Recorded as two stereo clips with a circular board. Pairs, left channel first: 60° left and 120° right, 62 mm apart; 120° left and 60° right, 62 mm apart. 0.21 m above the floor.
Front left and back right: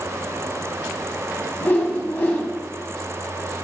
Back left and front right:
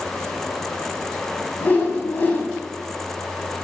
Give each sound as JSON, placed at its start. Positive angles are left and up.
{"t": 1.6, "sound": "a whoosh", "azimuth_deg": 85, "distance_m": 0.6}